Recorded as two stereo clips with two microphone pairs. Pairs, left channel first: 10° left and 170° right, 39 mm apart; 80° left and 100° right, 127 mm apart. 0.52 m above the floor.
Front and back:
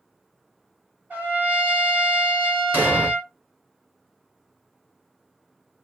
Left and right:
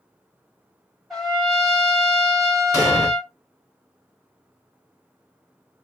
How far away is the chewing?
I don't hear chewing.